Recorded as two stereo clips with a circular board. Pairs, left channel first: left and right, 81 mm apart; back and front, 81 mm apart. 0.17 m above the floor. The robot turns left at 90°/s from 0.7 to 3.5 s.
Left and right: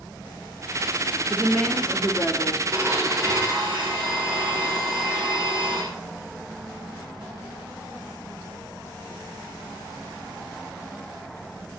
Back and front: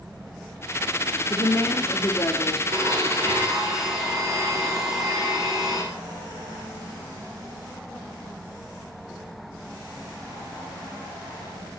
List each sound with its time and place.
1.3 s a woman speaking: 155° right, 1.4 m; by 2.6 s 85° left, 1.4 m
2.7 s a blender: 15° right, 6 m; by 5.8 s 85° right, 6 m